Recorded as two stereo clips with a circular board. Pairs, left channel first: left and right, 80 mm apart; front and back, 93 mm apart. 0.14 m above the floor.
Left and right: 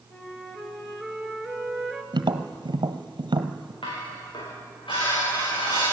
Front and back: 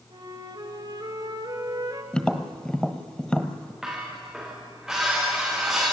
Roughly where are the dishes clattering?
Left.